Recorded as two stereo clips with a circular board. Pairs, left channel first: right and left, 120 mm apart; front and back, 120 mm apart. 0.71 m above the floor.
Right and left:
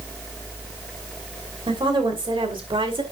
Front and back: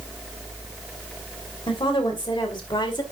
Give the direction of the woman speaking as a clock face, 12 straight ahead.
11 o'clock.